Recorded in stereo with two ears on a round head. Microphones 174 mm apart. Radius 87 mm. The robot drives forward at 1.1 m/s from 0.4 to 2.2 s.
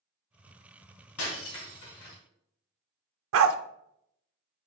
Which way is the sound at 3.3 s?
80° right.